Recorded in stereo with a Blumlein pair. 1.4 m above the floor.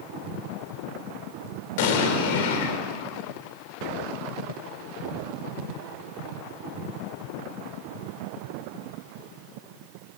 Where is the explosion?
50° left, 3 m.